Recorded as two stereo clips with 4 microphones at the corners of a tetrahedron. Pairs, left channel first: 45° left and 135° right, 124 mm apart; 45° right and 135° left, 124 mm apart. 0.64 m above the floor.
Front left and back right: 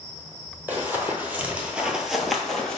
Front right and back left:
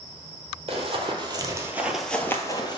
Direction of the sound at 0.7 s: 155° left.